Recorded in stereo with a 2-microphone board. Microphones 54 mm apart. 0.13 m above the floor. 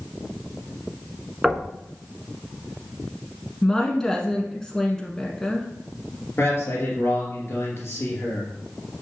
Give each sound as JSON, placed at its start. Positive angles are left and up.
{"t": 1.4, "sound": "knocking", "side_deg": -10, "distance_m": 1.1}
{"t": 3.6, "sound": "a woman speaking", "side_deg": 10, "distance_m": 1.0}
{"t": 6.4, "sound": "a man speaking", "side_deg": 45, "distance_m": 3.0}